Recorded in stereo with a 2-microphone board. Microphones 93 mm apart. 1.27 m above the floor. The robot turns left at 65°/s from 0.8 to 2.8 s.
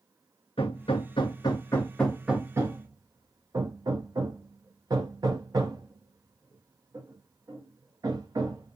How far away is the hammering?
About 0.8 m.